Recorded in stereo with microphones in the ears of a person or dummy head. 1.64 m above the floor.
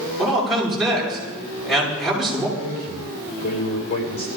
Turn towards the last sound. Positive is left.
turn(degrees=45)  # may be behind; listen again after turning